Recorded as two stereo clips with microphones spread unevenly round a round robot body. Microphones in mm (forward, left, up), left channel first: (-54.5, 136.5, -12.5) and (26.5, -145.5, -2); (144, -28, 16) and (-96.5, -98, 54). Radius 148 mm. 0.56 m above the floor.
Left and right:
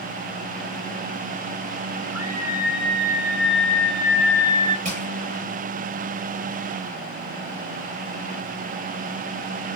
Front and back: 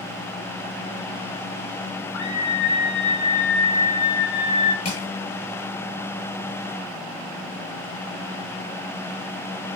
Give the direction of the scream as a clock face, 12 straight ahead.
12 o'clock.